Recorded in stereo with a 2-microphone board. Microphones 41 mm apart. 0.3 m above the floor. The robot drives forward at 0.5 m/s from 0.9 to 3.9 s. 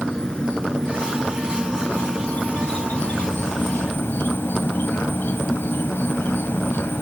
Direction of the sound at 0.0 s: 20° left (ahead or behind).